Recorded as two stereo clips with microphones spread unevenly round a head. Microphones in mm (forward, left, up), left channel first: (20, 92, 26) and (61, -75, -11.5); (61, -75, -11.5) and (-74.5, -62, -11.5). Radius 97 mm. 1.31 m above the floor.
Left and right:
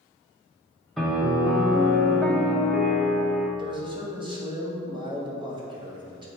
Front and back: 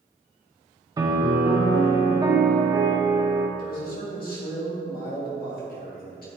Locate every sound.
1.0 s a piano: 165° left, 0.8 m
3.6 s a man speaking: 15° right, 2.5 m